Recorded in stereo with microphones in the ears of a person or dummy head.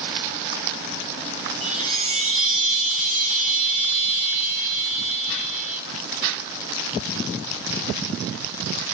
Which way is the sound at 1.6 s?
40° right (ahead or behind).